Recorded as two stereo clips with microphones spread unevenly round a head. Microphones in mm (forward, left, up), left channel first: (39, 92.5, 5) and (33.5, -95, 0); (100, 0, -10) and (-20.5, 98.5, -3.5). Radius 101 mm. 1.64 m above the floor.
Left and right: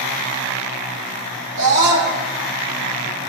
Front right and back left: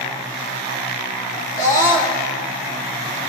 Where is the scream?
110° right, 4 m.